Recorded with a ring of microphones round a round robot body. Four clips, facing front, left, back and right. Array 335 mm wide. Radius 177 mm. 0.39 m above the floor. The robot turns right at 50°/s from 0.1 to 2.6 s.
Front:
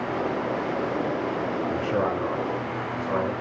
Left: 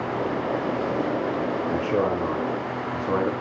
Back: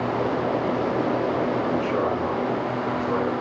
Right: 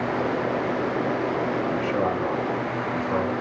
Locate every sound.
1.7 s a man speaking: 50° left, 5.5 m; by 3.3 s 95° left, 5.5 m